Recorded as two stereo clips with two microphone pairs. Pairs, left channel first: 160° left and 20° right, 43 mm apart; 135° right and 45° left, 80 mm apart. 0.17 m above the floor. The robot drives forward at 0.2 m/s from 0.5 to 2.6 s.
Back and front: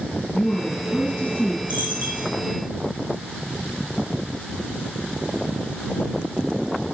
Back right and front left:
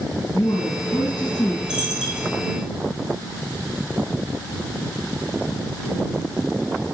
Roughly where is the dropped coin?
Behind left.